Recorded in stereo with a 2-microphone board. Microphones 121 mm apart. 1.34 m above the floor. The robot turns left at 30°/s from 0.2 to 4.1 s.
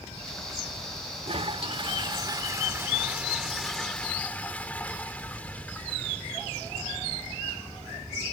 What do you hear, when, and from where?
1.2 s a toilet flushing: 110° right; by 8.0 s 165° left